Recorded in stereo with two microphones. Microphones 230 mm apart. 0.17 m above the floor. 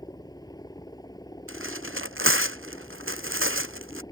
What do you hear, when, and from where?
0.0 s a helicopter: 15° left (ahead or behind)
1.5 s tearing paper: 65° right (ahead or behind)